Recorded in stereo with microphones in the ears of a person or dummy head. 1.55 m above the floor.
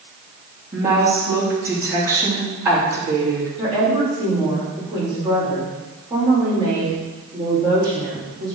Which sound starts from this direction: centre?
A woman speaking, at 0.7 s.